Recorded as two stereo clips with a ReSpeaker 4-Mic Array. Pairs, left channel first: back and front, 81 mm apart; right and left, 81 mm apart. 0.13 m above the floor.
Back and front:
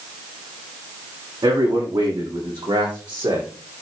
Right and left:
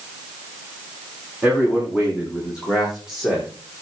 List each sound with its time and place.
1.4 s a man speaking: 15° left, 8.5 m; by 3.5 s 5° left, 9 m